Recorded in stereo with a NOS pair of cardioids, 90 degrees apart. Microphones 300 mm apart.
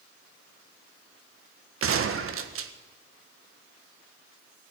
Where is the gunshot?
45° right, 1.5 m.